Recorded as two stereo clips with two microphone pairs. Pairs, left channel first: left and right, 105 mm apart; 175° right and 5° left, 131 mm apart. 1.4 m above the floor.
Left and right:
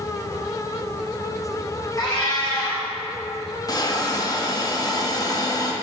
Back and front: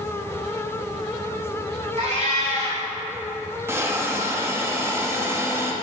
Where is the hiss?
65° left, 0.9 m.